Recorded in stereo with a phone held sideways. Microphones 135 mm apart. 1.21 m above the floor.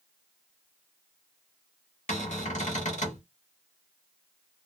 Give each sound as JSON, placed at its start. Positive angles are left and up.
{"t": 2.1, "sound": "a cupboard door", "side_deg": 60, "distance_m": 1.5}